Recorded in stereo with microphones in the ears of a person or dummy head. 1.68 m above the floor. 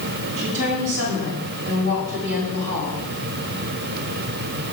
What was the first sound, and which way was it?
A woman speaking, 75° right (ahead or behind).